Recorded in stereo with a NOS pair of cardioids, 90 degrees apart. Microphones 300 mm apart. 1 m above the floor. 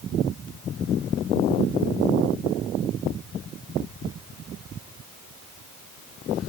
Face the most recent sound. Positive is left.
No sound to turn to.